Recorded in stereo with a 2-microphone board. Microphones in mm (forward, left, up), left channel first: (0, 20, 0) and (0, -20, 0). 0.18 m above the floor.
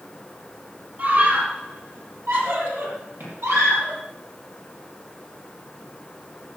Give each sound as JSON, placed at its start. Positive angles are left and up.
{"t": 1.0, "sound": "a scream", "side_deg": -55, "distance_m": 5.0}